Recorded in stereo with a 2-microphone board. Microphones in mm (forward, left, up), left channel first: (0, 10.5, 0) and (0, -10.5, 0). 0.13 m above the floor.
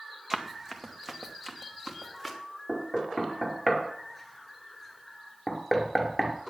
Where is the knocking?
5° left (ahead or behind), 1.9 m.